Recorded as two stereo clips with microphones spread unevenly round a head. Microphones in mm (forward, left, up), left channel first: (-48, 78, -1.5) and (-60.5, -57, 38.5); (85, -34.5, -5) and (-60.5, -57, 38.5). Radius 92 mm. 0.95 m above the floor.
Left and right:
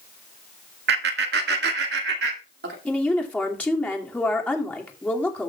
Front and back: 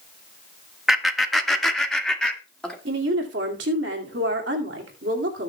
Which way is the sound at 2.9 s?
160° left.